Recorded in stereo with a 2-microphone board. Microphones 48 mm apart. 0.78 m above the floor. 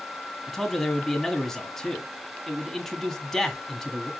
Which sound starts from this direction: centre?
A man speaking, at 0.5 s.